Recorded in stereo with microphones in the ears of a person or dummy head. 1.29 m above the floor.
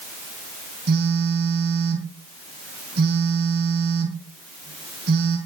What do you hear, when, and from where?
0.9 s a phone buzzing: 60° right (ahead or behind), 5.5 m